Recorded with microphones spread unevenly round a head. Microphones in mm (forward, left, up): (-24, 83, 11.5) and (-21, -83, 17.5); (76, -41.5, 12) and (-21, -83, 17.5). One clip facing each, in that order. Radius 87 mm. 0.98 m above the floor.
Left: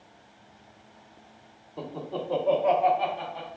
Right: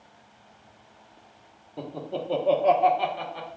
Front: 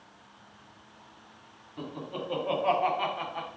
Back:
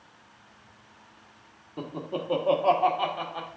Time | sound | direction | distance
1.8 | laughter | 165° right | 0.8 m